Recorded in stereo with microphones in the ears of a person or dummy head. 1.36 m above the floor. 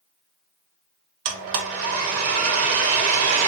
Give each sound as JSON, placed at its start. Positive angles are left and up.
{"t": 1.2, "sound": "a blender", "side_deg": -45, "distance_m": 0.6}